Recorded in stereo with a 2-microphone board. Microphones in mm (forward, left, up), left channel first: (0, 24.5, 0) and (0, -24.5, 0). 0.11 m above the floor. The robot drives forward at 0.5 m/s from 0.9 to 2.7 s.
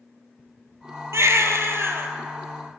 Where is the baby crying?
65° right (ahead or behind), 0.9 m; by 2.1 s 50° right (ahead or behind), 1.1 m.